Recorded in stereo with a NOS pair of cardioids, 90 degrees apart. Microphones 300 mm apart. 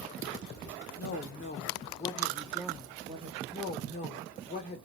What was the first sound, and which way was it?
A woman speaking, 55° left.